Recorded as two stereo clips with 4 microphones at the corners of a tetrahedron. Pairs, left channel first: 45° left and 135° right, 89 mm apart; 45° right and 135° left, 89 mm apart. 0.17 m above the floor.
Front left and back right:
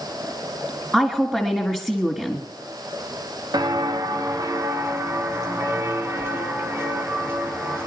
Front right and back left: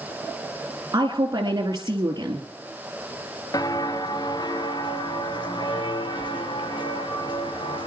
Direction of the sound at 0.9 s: 145° left.